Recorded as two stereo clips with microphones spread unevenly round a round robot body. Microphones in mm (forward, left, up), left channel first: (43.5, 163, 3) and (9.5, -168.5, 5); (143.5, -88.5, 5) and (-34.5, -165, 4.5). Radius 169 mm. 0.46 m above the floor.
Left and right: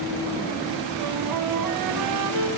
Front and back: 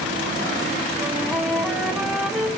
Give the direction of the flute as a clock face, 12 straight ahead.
2 o'clock.